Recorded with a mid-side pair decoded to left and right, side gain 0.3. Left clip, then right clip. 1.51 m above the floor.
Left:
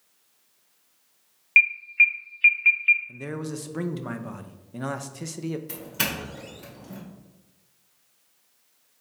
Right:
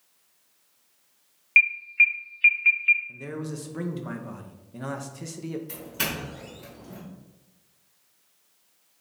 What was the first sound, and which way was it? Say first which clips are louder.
An alarm: left 1 dB; 10° left.